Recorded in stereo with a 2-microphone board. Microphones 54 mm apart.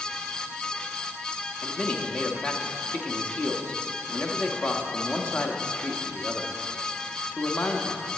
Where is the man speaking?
20° left (ahead or behind), 0.9 m.